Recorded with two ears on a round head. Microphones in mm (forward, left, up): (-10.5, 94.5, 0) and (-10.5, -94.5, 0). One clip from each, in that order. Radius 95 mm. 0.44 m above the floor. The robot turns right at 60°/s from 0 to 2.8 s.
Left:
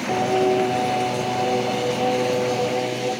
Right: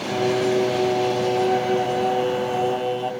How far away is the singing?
About 2 m.